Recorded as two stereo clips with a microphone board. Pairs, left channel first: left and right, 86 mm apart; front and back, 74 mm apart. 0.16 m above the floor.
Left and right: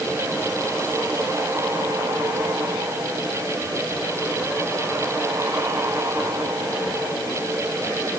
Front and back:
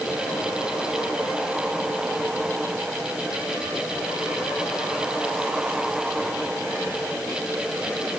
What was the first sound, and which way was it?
Only background noise.